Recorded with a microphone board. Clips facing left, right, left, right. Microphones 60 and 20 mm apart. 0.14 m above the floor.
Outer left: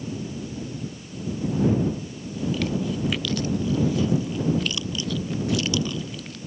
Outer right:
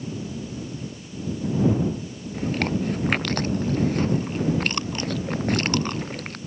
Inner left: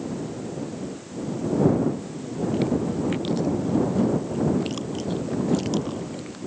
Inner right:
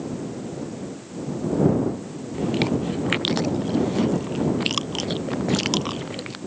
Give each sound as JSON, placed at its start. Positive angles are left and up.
{"t": 2.3, "sound": "chewing", "side_deg": -50}